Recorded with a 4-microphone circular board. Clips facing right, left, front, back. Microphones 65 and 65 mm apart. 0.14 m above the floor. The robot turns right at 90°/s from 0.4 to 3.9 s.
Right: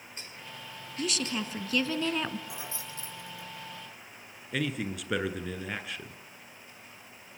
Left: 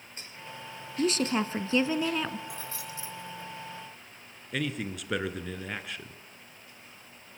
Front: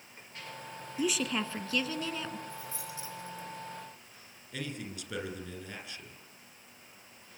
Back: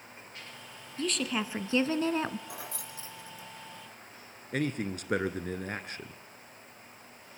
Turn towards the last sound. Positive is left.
turn(degrees=180)